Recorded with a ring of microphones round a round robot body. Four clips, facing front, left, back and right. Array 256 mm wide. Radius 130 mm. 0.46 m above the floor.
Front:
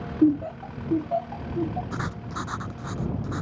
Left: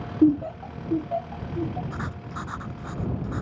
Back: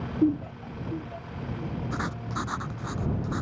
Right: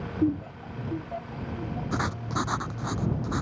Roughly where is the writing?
Right.